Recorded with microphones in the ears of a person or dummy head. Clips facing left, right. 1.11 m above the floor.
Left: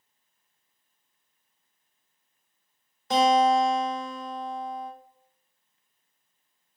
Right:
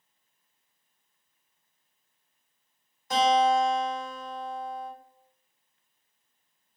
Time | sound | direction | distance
3.1 | a guitar | 55° left (ahead or behind) | 1.0 m